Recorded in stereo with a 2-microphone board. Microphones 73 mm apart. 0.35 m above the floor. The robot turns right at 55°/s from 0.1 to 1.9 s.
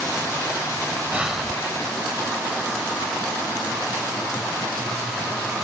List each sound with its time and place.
1.1 s breathing: 20° right (ahead or behind), 0.8 m; by 1.6 s centre (ahead or behind), 0.8 m